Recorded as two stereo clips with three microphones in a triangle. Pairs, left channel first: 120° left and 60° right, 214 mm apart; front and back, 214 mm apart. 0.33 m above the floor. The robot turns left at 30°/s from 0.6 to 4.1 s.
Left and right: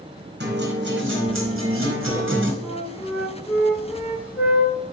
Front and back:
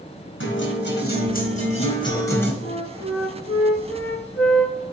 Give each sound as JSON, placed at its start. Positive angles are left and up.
{"t": 0.4, "sound": "a guitar", "azimuth_deg": -25, "distance_m": 3.5}
{"t": 2.6, "sound": "a flute", "azimuth_deg": 70, "distance_m": 5.0}